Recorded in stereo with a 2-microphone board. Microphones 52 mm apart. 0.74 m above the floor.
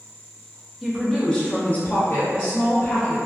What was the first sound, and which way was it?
A woman speaking, centre (ahead or behind).